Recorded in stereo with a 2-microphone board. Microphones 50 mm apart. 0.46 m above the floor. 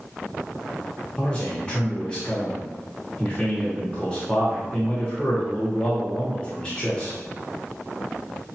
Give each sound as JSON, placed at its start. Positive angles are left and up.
{"t": 1.2, "sound": "a man speaking", "side_deg": 20, "distance_m": 0.9}